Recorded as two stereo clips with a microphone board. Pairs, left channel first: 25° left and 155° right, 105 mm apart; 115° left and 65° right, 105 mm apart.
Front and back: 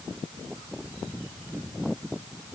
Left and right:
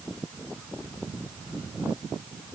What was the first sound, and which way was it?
Only background noise.